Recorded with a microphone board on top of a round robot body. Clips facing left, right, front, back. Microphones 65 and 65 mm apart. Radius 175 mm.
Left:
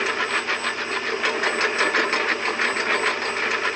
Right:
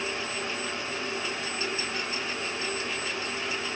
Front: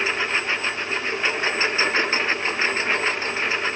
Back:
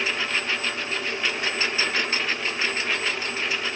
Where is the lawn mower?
65° left; by 3.8 s 60° left.